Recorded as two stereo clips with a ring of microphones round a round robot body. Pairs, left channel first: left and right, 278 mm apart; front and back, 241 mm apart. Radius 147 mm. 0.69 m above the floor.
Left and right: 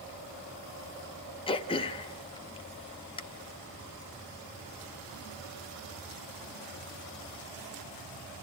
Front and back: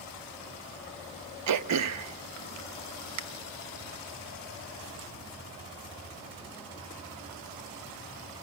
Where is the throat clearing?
165° left, 0.6 m.